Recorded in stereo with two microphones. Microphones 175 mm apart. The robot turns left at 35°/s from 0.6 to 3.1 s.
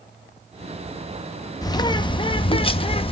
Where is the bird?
135° left, 0.5 m; by 3.1 s 85° left, 0.5 m.